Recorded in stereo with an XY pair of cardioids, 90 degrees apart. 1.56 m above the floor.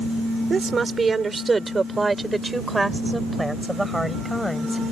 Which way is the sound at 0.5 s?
45° right.